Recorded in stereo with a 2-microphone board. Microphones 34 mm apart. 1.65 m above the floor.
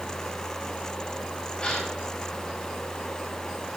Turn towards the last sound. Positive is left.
turn(degrees=25)  # may be behind; listen again after turning